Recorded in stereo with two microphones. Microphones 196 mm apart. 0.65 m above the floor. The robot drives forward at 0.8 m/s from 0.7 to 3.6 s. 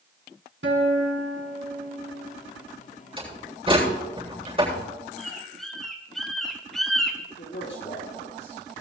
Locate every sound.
0.6 s a guitar: 85° right, 2.5 m; by 2.4 s 60° right (ahead or behind), 3 m
3.2 s a door slam: 25° right (ahead or behind), 9 m; by 4.8 s 30° right (ahead or behind), 8.5 m
5.2 s a bird: centre (ahead or behind), 1.7 m
7.4 s a man speaking: 75° left (ahead or behind), 9 m